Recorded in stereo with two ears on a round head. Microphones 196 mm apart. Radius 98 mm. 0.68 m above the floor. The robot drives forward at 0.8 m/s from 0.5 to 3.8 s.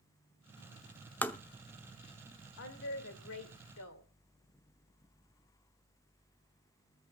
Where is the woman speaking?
55° left (ahead or behind), 2.5 m; by 4.0 s 70° left (ahead or behind), 2 m.